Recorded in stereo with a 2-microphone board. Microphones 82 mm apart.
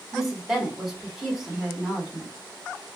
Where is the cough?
No cough in this recording.